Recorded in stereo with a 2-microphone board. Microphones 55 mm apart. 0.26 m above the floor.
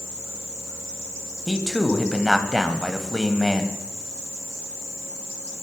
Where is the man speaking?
5° left (ahead or behind), 1.5 m.